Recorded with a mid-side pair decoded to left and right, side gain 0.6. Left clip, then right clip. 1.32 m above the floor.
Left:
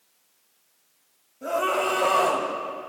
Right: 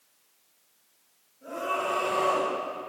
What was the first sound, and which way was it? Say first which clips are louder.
A scream: left 6 dB; 60° left.